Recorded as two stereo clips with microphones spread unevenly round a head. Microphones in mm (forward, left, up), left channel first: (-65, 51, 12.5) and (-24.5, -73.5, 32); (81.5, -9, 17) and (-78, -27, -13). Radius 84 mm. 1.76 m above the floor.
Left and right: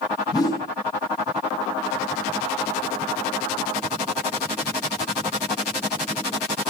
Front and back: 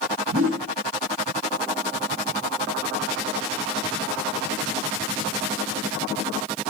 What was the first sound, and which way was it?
A whoosh, 170° left.